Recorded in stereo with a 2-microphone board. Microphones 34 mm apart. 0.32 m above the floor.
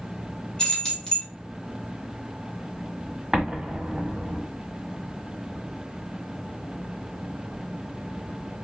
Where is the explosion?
15° right (ahead or behind), 1.1 m.